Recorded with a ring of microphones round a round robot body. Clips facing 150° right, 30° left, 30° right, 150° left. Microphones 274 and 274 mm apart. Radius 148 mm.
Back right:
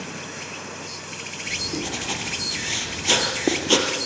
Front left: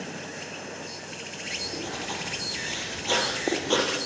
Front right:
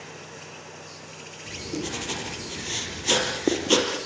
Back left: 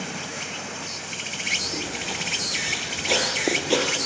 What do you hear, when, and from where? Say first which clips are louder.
0.0 s an insect: back right 1 dB, back left 7 dB; 125° left, 0.9 m
1.5 s writing: back right 6 dB, front right 3 dB; 100° right, 5 m